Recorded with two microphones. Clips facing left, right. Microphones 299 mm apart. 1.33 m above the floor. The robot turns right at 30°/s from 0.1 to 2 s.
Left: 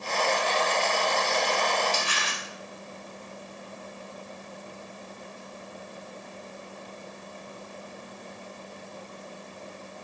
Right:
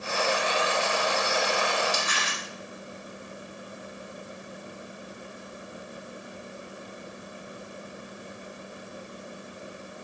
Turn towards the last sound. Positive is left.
turn(degrees=40)  # may be behind; listen again after turning